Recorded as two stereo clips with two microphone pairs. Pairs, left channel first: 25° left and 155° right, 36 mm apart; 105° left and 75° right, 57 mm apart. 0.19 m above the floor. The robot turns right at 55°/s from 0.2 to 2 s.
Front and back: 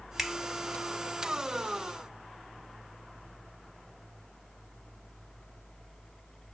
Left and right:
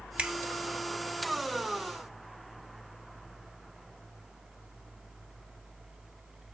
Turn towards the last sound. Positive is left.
turn(degrees=20)